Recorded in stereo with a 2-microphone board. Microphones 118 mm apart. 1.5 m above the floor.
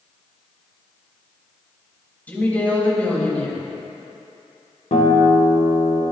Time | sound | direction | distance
2.3 | a woman speaking | 15° left (ahead or behind) | 3 m
4.9 | a guitar | 80° left | 1.6 m